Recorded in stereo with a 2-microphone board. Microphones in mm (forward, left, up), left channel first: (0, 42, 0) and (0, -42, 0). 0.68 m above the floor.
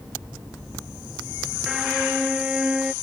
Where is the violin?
10° right (ahead or behind).